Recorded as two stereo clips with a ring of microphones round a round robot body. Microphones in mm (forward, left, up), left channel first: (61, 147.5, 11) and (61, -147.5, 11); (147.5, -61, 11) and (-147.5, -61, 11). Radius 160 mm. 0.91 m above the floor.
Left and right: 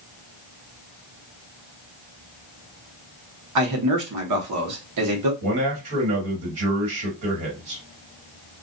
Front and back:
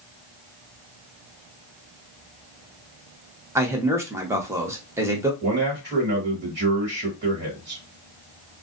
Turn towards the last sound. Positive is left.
turn(degrees=-125)